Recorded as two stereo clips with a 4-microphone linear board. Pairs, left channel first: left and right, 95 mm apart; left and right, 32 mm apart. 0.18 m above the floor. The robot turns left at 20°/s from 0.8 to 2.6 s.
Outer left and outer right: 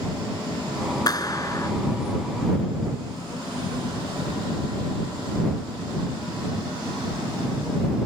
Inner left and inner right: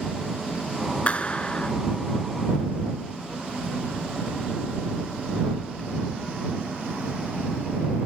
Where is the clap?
45° left (ahead or behind); by 1.7 s 35° left (ahead or behind).